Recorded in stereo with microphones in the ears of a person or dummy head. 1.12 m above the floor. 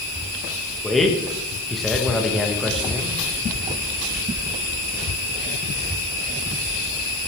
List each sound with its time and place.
0.8 s a man speaking: centre (ahead or behind), 1.4 m